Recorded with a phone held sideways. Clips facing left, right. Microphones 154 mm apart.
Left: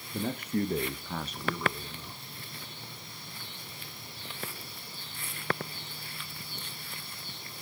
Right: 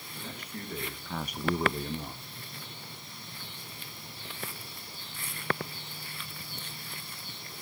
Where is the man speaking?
60° left (ahead or behind), 1.9 m; by 2.2 s 65° right (ahead or behind), 1.8 m.